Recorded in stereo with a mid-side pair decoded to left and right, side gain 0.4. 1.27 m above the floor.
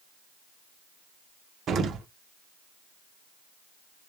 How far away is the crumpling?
No crumpling in this recording.